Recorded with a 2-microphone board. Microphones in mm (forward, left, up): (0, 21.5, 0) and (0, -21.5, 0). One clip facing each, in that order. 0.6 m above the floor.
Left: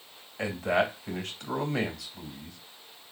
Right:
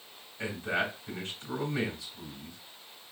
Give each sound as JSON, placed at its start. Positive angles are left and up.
{"t": 0.4, "sound": "a man speaking", "side_deg": 75, "distance_m": 2.5}